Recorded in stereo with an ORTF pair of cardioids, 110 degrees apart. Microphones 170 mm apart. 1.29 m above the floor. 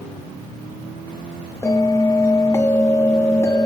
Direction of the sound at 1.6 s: 20° left.